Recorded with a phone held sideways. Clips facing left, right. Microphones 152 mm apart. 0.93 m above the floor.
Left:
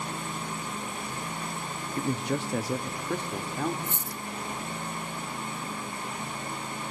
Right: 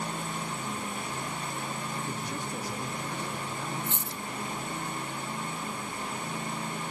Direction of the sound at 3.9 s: 70° right (ahead or behind).